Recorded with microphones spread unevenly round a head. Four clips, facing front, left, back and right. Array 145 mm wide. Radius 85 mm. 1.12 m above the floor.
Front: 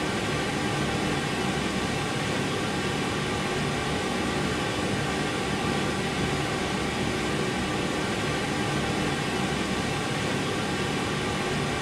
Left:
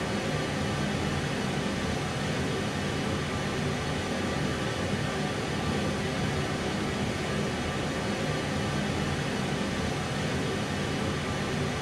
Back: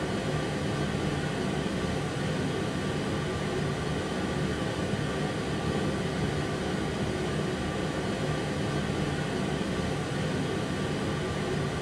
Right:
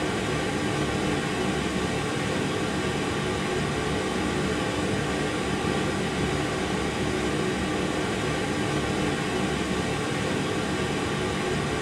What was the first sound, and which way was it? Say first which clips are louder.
Running water: right 4 dB, front 2 dB; 50° right.